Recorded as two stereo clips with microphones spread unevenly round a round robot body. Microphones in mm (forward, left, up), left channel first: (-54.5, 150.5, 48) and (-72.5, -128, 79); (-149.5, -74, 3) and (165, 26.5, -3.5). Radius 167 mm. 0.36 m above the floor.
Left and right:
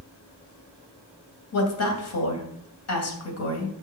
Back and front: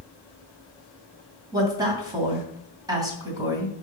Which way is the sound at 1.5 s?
95° left.